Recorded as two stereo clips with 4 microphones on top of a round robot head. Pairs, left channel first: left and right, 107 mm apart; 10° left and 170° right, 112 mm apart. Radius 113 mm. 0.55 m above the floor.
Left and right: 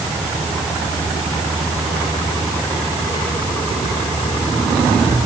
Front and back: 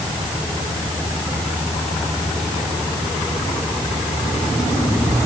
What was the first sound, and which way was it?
Only background noise.